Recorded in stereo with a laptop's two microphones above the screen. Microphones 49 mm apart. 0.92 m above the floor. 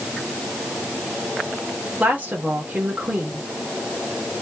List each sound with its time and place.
2.0 s a woman speaking: 35° right (ahead or behind), 1.3 m